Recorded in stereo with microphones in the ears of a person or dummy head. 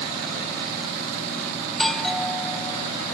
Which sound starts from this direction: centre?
A doorbell, at 1.7 s.